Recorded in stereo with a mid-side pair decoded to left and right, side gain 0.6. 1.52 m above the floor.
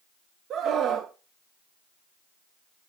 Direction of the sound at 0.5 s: 55° right.